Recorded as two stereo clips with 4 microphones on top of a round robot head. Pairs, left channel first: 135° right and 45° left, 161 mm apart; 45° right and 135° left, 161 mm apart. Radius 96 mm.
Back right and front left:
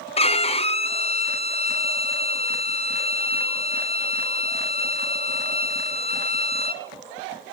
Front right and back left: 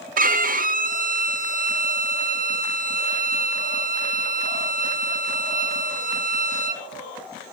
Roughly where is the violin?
Behind.